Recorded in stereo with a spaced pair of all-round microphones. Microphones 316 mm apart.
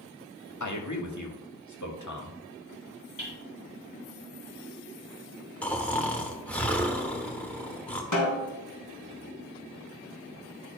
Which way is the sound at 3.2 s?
85° left.